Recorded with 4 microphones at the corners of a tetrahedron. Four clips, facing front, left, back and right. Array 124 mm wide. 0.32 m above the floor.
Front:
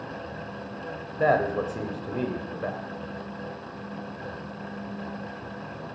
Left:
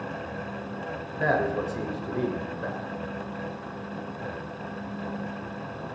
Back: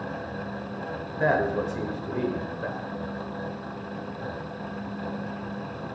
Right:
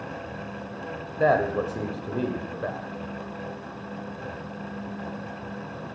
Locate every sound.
1.2 s a man speaking: 55° right, 1.1 m